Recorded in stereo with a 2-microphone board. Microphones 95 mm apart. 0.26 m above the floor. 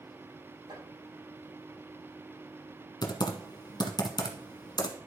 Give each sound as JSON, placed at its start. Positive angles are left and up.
{"t": 0.7, "sound": "chopping", "side_deg": -55, "distance_m": 6.5}
{"t": 3.0, "sound": "typing on a keyboard", "side_deg": 50, "distance_m": 1.2}